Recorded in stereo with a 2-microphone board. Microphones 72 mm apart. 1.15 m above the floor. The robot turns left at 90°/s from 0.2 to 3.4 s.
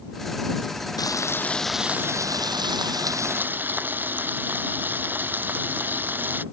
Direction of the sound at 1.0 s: 65° left.